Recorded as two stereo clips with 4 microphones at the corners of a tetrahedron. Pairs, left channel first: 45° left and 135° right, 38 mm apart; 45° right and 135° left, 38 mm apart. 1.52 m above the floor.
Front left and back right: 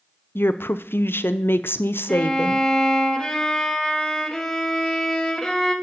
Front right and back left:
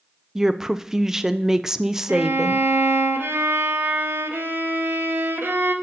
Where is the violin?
125° left, 1.1 m.